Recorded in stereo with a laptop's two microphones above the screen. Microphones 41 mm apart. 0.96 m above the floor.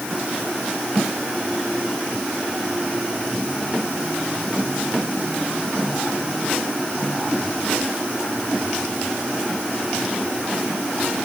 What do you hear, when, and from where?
Only background noise.